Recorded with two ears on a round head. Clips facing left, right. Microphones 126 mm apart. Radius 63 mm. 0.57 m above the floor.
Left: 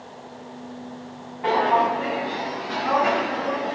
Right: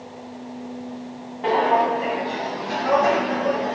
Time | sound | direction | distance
1.4 | footsteps | 35° right (ahead or behind) | 1.8 m